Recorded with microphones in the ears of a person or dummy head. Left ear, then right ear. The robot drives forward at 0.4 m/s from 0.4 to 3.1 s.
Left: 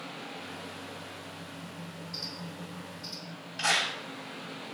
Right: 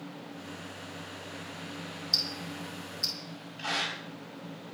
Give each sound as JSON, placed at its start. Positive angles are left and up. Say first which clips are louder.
{"t": 2.1, "sound": "ticking", "louder": "right 10 dB", "side_deg": -75, "distance_m": 6.0}
{"t": 3.6, "sound": "a clap", "louder": "left 5 dB", "side_deg": 70, "distance_m": 5.5}